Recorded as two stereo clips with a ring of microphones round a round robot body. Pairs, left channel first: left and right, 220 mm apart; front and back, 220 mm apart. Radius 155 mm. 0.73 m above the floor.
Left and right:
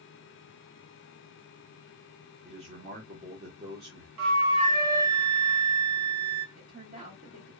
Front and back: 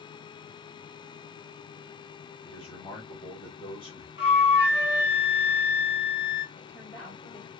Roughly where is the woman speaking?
Right.